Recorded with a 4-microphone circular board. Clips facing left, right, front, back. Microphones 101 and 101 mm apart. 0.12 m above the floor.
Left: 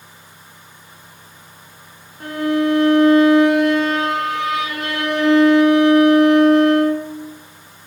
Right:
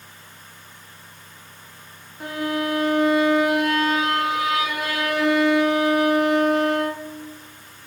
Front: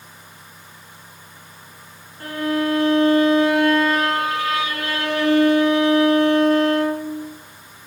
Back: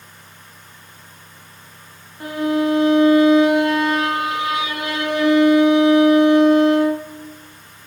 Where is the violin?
170° right, 0.7 m.